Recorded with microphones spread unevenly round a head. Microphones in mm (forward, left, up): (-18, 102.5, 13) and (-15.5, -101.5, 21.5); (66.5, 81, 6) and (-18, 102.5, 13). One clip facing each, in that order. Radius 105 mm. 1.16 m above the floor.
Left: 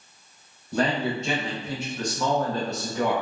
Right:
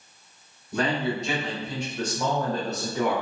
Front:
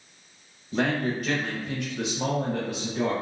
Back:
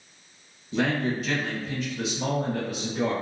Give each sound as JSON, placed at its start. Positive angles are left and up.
{"t": 0.7, "sound": "a man speaking", "azimuth_deg": 35, "distance_m": 1.2}